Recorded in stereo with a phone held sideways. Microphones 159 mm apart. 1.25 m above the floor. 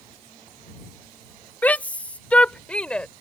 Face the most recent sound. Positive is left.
turn(degrees=5)  # may be behind; listen again after turning